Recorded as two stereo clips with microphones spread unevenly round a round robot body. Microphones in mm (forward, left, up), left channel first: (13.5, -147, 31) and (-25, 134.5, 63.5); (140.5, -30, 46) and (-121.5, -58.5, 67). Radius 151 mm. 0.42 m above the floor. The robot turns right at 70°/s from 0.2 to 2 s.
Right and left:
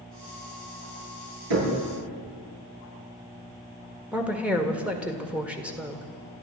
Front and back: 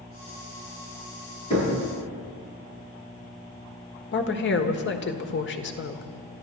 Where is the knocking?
80° left, 7.5 m; by 1.8 s 95° left, 7.5 m.